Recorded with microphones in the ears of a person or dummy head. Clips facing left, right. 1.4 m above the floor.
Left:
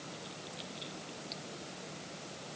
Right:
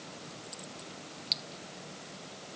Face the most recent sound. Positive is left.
No sound to turn to.